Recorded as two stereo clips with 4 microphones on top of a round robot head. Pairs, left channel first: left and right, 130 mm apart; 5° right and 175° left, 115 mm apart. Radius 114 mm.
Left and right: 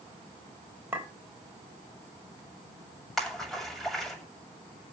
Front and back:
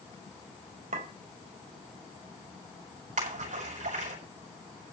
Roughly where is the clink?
Behind.